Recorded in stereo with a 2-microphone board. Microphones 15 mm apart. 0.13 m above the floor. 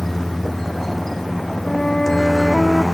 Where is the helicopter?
35° left (ahead or behind); by 2.9 s 40° left (ahead or behind).